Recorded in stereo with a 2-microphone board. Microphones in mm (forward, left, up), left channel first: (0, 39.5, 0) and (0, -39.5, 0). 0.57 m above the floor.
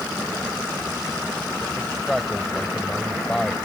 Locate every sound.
1.8 s a man speaking: 5° left (ahead or behind)